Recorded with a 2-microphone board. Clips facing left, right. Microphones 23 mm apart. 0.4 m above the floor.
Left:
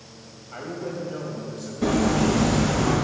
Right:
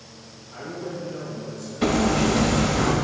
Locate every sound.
0.5 s a man speaking: 60° left (ahead or behind), 2.5 m
1.8 s hammering: 60° right (ahead or behind), 1.4 m